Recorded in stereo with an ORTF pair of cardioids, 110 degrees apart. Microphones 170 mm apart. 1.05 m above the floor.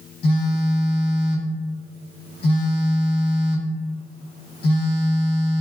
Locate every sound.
0.2 s a phone buzzing: 35° left, 0.8 m